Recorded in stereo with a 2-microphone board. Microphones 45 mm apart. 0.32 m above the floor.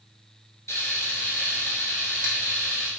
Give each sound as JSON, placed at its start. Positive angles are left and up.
{"t": 0.7, "sound": "frying", "side_deg": 80, "distance_m": 1.1}